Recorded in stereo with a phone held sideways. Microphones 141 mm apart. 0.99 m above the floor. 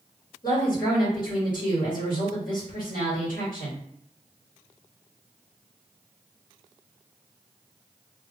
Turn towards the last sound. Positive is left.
turn(degrees=80)